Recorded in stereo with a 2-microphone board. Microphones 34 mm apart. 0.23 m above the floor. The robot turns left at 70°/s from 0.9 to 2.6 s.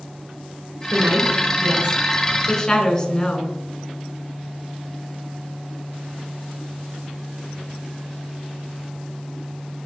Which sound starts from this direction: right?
A woman speaking, at 0.9 s.